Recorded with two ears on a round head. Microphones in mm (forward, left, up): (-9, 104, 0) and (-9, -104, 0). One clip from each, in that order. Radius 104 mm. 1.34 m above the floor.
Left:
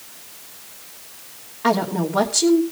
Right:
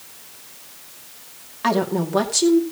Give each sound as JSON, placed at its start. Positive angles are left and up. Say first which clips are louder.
{"t": 1.6, "sound": "a woman speaking", "louder": "left 1 dB", "side_deg": -80, "distance_m": 2.5}